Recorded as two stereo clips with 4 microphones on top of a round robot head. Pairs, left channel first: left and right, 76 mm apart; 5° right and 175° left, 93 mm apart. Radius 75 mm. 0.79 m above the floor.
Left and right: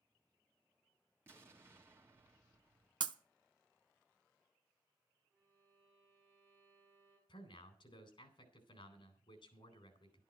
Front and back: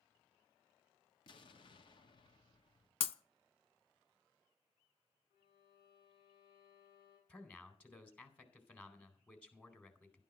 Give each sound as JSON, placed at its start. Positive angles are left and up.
{"t": 1.3, "sound": "an explosion", "azimuth_deg": -30, "distance_m": 1.9}
{"t": 3.0, "sound": "breaking glass", "azimuth_deg": -45, "distance_m": 0.6}
{"t": 5.3, "sound": "a violin", "azimuth_deg": -5, "distance_m": 8.0}
{"t": 7.3, "sound": "a man speaking", "azimuth_deg": 70, "distance_m": 4.0}